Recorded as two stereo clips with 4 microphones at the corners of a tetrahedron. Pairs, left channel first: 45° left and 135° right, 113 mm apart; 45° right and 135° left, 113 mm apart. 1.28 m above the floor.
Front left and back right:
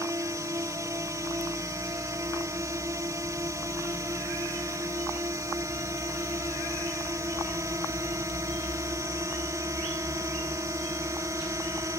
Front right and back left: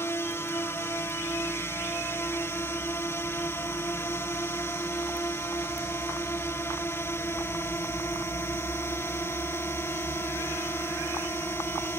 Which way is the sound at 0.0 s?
95° right.